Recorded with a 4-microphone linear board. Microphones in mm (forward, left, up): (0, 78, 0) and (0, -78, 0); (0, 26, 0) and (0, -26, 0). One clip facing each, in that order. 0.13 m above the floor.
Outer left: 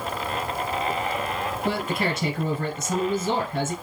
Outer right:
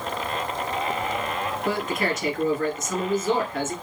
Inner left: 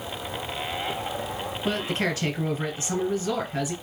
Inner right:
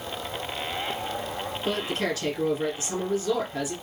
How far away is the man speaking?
About 1.6 m.